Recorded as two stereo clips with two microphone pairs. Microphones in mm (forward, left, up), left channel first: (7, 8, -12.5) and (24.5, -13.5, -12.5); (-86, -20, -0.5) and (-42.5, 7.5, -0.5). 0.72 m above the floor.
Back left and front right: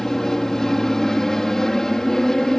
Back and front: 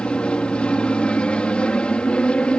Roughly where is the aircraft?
Behind.